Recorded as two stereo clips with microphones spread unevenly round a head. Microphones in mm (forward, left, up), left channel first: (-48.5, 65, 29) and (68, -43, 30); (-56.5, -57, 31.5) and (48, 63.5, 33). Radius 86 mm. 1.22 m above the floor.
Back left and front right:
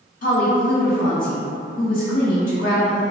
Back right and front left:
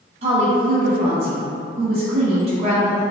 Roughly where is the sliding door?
I don't hear a sliding door.